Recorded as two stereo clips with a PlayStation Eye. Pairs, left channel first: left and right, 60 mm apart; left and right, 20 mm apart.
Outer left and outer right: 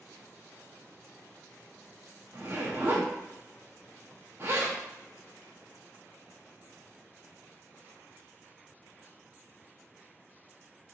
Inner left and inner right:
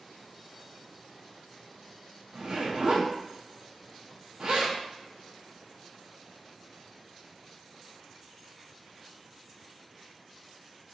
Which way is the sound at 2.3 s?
40° right (ahead or behind).